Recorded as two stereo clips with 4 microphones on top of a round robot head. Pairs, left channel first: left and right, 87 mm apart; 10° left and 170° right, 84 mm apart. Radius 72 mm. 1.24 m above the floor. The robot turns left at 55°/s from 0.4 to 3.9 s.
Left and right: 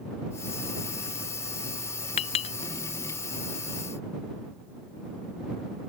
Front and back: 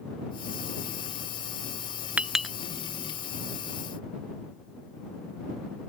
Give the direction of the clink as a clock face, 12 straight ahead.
8 o'clock.